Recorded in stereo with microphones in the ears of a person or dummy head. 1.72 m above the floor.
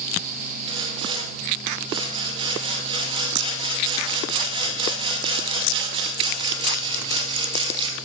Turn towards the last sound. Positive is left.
turn(degrees=-30)  # may be behind; listen again after turning